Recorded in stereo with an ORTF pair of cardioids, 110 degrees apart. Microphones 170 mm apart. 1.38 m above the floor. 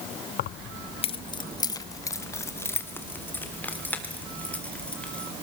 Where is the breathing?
No breathing in this recording.